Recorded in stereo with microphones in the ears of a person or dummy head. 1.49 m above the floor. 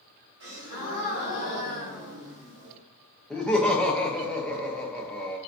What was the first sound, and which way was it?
A gasp, 75° right (ahead or behind).